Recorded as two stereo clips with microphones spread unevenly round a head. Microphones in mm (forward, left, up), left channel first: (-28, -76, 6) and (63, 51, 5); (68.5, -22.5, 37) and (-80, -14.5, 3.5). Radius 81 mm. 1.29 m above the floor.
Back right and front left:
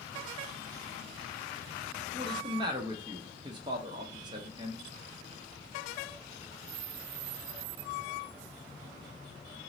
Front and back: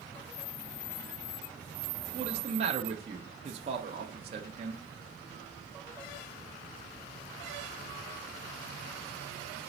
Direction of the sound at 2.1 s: 120° left.